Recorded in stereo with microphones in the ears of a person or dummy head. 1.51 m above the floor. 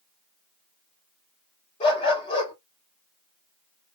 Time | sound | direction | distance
1.8 | a dog barking | 25° left (ahead or behind) | 2.5 m